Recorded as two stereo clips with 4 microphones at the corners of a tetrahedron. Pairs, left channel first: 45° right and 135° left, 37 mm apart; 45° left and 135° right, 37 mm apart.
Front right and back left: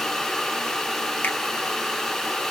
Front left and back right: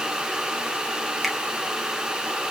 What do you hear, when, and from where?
1.2 s a finger snap: 50° right, 0.8 m